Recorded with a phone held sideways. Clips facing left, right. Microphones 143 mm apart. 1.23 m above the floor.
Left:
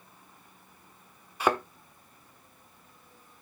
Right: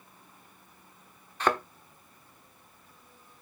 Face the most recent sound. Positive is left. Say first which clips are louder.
# left 1 dB
turn(degrees=10)  # may be behind; listen again after turning